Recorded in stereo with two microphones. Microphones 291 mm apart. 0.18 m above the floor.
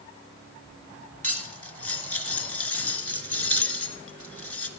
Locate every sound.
1.2 s cutlery clinking: 50° left (ahead or behind), 1.3 m